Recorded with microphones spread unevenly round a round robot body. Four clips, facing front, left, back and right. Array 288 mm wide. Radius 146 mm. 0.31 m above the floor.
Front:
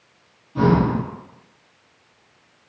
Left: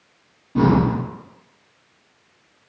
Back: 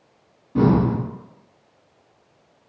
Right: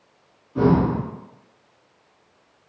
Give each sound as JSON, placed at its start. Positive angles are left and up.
{"t": 0.6, "sound": "breathing", "azimuth_deg": 130, "distance_m": 0.9}